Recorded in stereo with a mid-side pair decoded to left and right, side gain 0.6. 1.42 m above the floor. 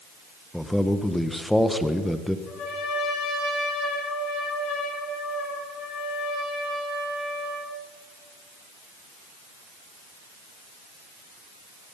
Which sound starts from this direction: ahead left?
A trumpet, at 2.5 s.